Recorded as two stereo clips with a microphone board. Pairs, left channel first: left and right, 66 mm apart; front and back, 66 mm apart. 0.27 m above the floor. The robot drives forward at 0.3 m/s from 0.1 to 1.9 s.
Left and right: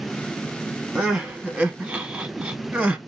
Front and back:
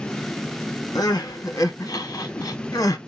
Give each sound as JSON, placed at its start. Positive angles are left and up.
{"t": 0.9, "sound": "crying", "azimuth_deg": -15, "distance_m": 0.8}